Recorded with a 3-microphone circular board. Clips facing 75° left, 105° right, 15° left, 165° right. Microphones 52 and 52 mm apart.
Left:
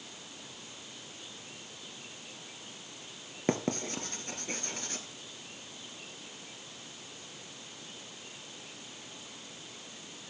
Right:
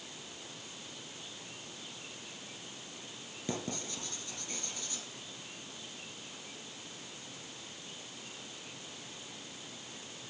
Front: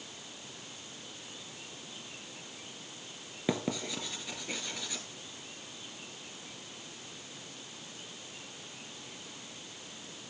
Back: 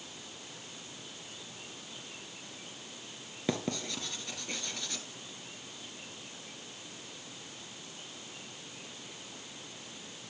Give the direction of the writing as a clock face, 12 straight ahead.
9 o'clock.